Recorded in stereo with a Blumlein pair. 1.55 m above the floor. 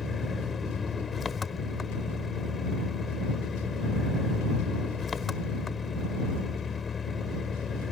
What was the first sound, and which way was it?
An engine running, 20° left.